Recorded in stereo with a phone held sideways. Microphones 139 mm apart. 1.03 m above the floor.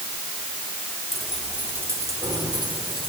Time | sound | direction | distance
1.1 | keys jangling | 5° left (ahead or behind) | 2 m